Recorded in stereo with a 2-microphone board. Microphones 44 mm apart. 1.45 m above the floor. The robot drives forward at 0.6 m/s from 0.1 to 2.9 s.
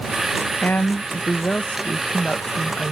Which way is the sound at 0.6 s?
45° left (ahead or behind).